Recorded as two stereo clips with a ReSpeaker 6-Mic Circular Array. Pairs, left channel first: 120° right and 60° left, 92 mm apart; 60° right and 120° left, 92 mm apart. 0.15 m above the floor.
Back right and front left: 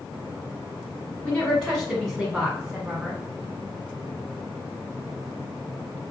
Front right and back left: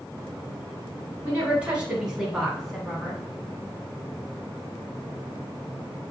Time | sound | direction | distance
1.2 | a woman speaking | 170° left | 1.6 m